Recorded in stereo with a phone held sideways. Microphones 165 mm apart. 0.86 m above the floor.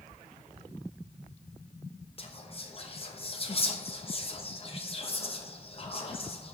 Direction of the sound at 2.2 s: 35° left (ahead or behind).